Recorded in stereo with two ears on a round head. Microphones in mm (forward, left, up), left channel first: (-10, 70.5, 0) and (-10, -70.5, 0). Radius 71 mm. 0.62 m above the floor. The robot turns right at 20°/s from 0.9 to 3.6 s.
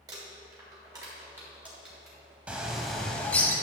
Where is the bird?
10° right (ahead or behind), 1.0 m; by 3.5 s 15° left (ahead or behind), 1.0 m.